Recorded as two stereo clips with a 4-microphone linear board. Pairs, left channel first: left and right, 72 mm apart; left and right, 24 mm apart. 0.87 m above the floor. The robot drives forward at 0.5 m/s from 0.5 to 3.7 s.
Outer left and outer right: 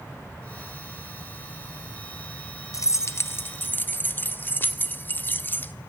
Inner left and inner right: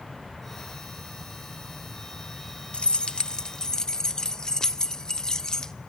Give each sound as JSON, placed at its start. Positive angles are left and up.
{"t": 2.7, "sound": "keys jangling", "side_deg": 50, "distance_m": 0.5}